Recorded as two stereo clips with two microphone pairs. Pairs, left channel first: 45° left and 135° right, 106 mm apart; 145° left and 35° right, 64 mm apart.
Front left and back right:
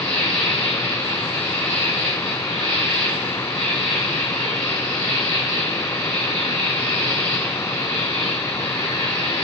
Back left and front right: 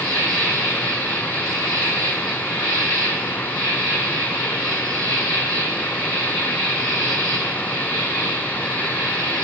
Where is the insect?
80° right, 4.5 m.